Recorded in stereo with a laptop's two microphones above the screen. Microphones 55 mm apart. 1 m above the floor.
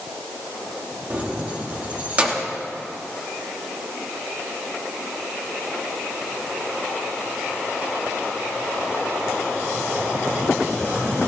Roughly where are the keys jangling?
Right.